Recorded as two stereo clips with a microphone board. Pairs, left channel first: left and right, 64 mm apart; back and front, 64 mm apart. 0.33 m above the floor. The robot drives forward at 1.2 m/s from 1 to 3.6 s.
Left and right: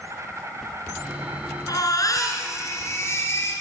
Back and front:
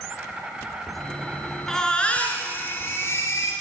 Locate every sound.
0.0 s an insect: 65° right, 2.5 m; by 3.6 s 145° right, 3 m
1.7 s a baby crying: 95° left, 2 m; by 3.5 s 140° left, 3 m